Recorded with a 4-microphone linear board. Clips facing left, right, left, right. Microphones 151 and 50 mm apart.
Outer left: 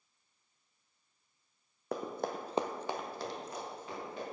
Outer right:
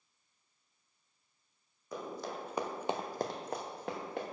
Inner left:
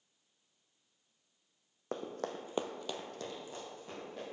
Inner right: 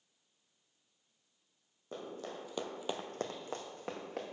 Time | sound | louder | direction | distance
1.9 | running footsteps | outer left 4 dB, inner left 4 dB | 70° left (ahead or behind) | 1.3 m